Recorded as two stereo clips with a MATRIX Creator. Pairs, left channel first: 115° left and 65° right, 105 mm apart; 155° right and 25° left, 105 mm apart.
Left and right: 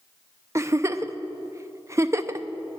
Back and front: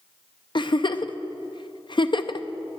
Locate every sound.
0.6 s a giggle: 125° right, 0.5 m